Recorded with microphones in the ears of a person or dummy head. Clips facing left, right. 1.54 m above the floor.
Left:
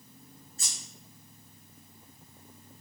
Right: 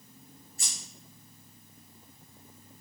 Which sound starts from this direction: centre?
Scissors, at 0.6 s.